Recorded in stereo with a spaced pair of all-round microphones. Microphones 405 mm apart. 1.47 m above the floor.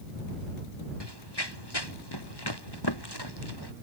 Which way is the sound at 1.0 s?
75° left (ahead or behind).